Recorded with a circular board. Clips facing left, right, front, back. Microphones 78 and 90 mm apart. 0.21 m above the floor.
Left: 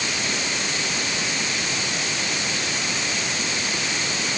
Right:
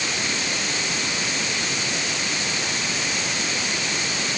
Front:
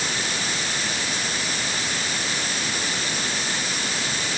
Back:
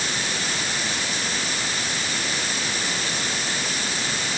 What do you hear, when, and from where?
Only background noise.